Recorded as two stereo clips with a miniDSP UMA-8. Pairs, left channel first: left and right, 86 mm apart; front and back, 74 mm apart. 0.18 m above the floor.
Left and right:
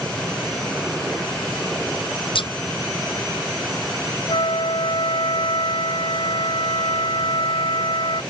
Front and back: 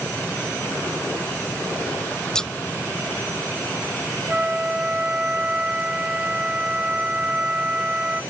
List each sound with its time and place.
2.4 s scissors: 80° left
4.3 s a flute: 105° left